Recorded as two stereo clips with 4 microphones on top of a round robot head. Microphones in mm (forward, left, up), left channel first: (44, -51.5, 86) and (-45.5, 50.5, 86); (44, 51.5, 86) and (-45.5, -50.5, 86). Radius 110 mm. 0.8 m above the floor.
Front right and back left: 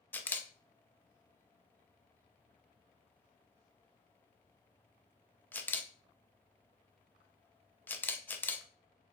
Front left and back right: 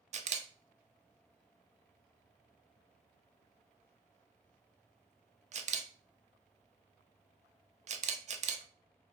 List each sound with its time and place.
0.1 s a camera shutter: 125° right, 0.6 m